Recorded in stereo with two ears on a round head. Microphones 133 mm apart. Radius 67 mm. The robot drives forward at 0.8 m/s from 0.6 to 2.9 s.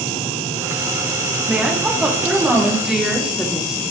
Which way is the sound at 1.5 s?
10° right (ahead or behind).